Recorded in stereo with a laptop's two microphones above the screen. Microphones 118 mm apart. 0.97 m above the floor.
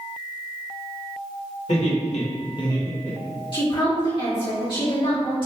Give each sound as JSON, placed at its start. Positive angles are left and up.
{"t": 1.7, "sound": "laughter", "side_deg": 65, "distance_m": 1.0}
{"t": 3.5, "sound": "a woman speaking", "side_deg": 45, "distance_m": 1.3}